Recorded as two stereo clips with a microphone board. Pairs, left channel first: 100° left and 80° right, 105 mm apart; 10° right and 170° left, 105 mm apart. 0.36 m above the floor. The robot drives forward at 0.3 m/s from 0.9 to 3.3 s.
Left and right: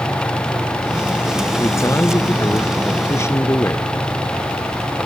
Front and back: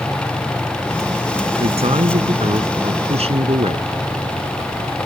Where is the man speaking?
160° left; by 3.9 s 165° left.